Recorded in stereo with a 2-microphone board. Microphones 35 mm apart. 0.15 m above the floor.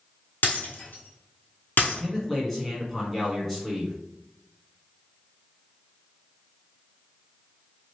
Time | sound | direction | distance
0.4 | breaking glass | 65° left (ahead or behind) | 1.6 m
1.8 | a man speaking | 5° left (ahead or behind) | 1.2 m